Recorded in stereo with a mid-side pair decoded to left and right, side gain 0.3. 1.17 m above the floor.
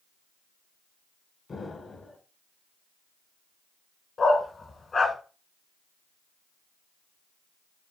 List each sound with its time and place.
1.5 s an explosion: 60° left, 2 m
4.2 s a dog barking: 55° left, 2 m